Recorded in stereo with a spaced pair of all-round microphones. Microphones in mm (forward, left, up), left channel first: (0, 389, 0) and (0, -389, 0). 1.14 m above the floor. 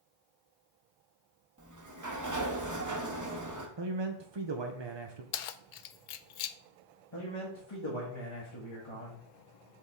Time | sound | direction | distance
1.6 | a sliding door | 25° right (ahead or behind) | 0.9 m
3.8 | a man speaking | 35° right (ahead or behind) | 0.7 m
5.3 | keys jangling | 70° left (ahead or behind) | 0.6 m
7.1 | a man speaking | 35° left (ahead or behind) | 1.6 m